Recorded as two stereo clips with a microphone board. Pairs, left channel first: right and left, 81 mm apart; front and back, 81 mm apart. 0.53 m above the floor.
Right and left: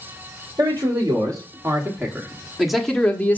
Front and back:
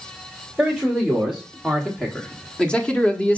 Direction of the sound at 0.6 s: 90° left.